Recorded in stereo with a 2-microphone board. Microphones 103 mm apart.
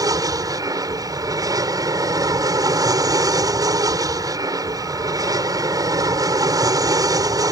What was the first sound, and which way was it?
An aircraft, 35° right (ahead or behind).